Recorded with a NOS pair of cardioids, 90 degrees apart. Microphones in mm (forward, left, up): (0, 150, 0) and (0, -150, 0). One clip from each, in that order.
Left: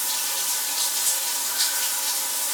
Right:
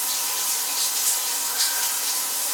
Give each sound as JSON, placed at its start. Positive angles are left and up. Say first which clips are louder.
{"t": 0.0, "sound": "running water", "louder": "even", "azimuth_deg": 0, "distance_m": 1.2}